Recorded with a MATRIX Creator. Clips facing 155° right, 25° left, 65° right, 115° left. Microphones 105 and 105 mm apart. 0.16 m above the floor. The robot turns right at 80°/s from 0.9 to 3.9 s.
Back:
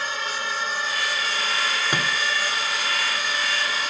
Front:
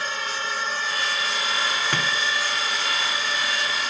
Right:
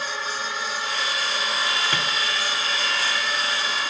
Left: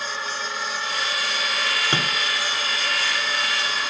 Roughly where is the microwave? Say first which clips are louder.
Even, left 1 dB; behind left.